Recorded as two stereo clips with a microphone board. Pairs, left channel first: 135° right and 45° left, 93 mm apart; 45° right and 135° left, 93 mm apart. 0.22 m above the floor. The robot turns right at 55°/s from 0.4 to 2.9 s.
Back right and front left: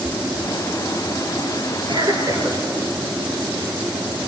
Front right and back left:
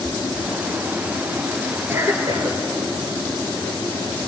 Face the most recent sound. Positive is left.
turn(degrees=125)